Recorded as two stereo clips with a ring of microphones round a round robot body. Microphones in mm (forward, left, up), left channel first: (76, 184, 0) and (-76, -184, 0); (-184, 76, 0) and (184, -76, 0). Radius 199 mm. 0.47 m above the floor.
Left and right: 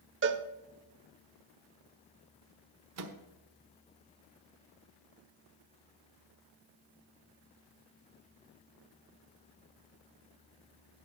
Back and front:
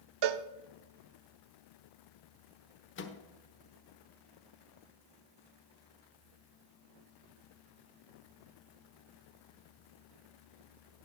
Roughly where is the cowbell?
Ahead right.